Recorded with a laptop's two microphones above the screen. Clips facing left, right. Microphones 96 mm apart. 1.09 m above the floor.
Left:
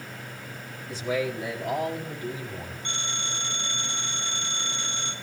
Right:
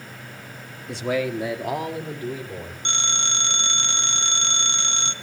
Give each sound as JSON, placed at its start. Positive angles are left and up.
{"t": 0.9, "sound": "a man speaking", "side_deg": -65, "distance_m": 1.6}
{"t": 2.9, "sound": "a phone ringing", "side_deg": -85, "distance_m": 1.1}